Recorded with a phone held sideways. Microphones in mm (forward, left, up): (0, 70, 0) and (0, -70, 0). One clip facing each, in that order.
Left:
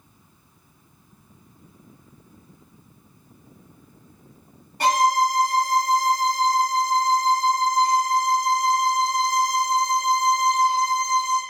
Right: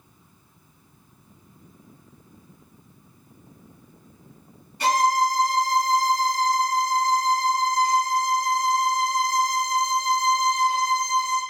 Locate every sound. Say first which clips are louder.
4.8 s a violin: left 1 dB; 60° left (ahead or behind), 1.1 m